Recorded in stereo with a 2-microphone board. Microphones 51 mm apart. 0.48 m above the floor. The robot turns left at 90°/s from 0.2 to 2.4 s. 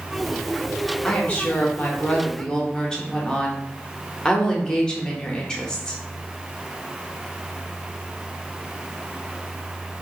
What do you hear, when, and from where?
1.0 s a woman speaking: 15° left (ahead or behind), 0.7 m; by 6.0 s 10° left (ahead or behind), 0.7 m